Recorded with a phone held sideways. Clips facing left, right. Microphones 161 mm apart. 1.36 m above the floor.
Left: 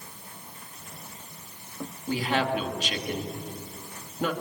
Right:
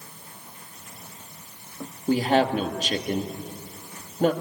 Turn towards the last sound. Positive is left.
turn(degrees=-40)  # may be behind; listen again after turning